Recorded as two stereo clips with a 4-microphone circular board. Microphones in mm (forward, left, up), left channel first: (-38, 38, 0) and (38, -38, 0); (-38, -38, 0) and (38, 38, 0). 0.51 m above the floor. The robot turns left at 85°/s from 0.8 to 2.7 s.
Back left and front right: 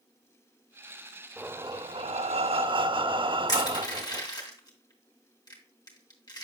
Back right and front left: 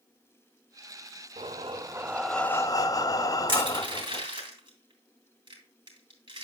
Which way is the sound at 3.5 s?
85° left.